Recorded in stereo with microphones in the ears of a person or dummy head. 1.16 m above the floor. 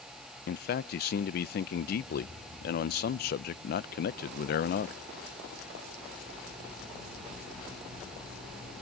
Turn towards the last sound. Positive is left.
turn(degrees=50)  # may be behind; listen again after turning